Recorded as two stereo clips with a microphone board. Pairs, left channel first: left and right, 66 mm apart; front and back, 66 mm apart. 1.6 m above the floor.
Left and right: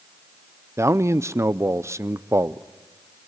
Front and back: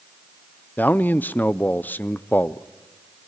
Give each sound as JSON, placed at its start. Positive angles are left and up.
{"t": 0.8, "sound": "a man speaking", "azimuth_deg": -55, "distance_m": 0.5}